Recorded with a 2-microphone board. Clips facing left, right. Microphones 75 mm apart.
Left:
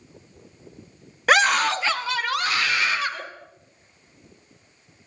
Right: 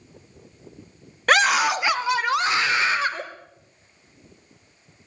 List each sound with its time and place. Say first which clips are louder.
1.3 s a scream: even; 5° left (ahead or behind), 0.8 m; by 3.2 s 30° right (ahead or behind), 2.5 m